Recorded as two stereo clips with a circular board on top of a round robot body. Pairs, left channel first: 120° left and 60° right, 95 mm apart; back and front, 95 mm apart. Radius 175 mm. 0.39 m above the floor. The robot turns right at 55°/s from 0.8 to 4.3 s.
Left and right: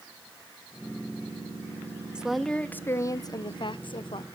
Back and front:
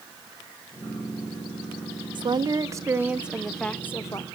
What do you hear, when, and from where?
2.1 s a woman speaking: 20° left, 1.3 m; by 4.2 s 135° left, 1.3 m